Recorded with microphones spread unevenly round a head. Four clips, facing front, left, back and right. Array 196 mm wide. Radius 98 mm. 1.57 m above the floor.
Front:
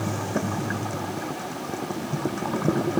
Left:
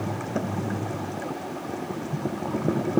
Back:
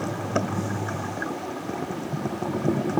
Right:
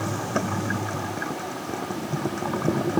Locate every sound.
Only background noise.